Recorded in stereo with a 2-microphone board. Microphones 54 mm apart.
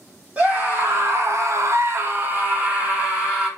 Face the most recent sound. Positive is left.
turn(degrees=-20)  # may be behind; listen again after turning